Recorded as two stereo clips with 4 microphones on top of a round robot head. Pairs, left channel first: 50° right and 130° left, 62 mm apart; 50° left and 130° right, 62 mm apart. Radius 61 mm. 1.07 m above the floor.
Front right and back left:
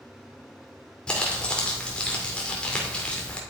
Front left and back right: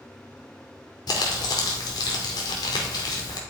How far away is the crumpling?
About 2 m.